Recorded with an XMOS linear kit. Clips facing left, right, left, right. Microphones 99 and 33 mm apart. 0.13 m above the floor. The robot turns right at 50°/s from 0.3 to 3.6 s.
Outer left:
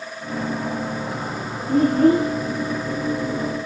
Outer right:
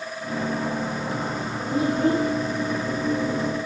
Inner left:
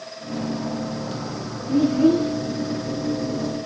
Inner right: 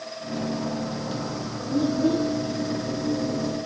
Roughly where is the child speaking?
Left.